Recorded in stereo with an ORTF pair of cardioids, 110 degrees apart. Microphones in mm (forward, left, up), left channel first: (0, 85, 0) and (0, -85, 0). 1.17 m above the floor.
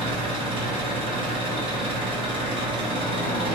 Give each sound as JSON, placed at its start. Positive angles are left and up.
{"t": 0.0, "sound": "an engine running", "azimuth_deg": -30, "distance_m": 0.8}